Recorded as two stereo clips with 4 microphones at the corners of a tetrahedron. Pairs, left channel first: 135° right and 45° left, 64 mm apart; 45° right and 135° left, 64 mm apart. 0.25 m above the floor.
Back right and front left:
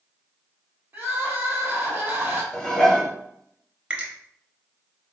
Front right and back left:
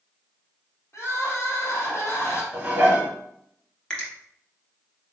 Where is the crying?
10° right, 1.4 m.